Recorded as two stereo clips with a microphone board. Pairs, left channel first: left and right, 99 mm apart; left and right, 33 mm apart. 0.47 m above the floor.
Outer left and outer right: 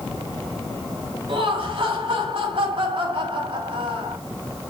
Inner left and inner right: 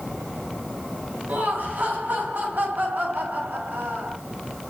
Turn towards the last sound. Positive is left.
turn(degrees=-70)  # may be behind; listen again after turning